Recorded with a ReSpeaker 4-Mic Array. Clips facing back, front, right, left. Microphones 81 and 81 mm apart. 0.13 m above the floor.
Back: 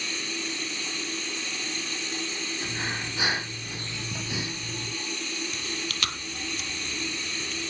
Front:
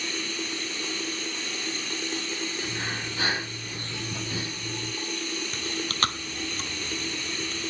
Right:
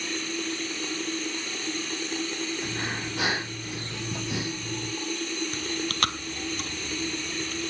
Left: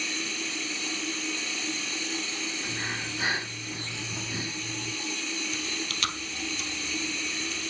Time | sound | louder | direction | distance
0.0 | running water | front 1 dB, right 3 dB | 50° right | 7 m
2.6 | breathing | even, right 3 dB | 105° right | 4 m
5.5 | chewing | front 3 dB, right 5 dB | 50° right | 1.1 m